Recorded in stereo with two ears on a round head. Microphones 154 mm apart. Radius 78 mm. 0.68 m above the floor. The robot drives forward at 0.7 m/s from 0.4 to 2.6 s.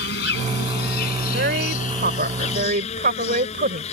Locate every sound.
0.0 s an insect: 75° left (ahead or behind); by 3.9 s 40° left (ahead or behind)
1.3 s a woman speaking: 65° right (ahead or behind); by 3.8 s 50° right (ahead or behind)